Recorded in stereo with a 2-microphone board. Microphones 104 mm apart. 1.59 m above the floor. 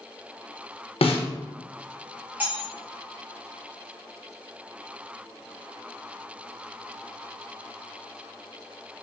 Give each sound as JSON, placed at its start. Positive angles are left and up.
{"t": 1.0, "sound": "a snare drum", "side_deg": 70, "distance_m": 0.6}
{"t": 2.4, "sound": "cutlery clinking", "side_deg": -15, "distance_m": 0.9}